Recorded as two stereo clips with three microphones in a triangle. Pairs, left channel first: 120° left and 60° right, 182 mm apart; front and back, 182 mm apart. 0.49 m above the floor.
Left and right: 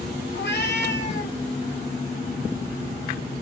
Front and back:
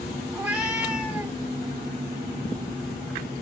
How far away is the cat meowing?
About 1.2 m.